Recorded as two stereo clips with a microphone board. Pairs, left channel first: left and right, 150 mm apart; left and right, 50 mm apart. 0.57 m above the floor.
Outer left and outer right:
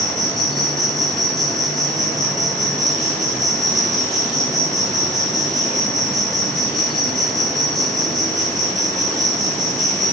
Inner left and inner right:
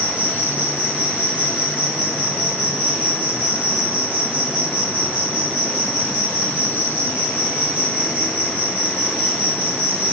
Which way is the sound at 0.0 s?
25° right (ahead or behind).